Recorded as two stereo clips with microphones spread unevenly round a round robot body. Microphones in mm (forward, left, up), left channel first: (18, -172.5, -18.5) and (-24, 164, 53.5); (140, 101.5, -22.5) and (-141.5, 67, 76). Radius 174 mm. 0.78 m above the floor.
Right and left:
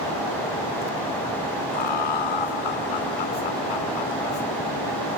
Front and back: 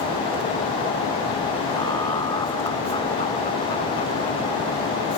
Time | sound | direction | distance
1.7 | laughter | 75° right | ?